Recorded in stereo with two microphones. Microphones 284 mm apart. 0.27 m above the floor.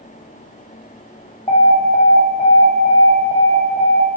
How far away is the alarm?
About 0.8 m.